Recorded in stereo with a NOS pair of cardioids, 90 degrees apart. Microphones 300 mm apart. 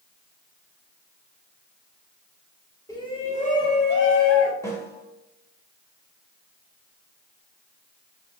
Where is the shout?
10° left, 1.3 m; by 4.5 s 50° left, 1.5 m.